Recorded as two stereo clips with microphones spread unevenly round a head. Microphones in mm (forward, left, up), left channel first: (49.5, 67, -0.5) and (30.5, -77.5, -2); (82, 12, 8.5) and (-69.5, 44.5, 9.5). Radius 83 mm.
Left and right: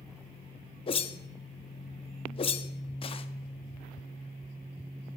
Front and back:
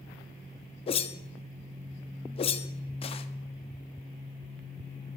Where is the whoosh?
35° left, 0.5 m.